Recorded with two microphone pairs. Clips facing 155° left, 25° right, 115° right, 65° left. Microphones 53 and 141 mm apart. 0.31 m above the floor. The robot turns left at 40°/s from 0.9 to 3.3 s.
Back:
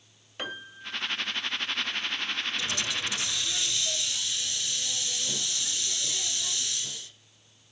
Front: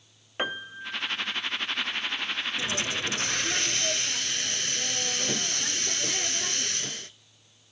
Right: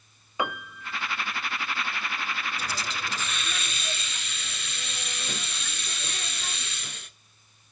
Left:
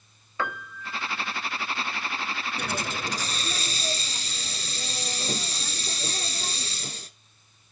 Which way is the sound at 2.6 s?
40° left.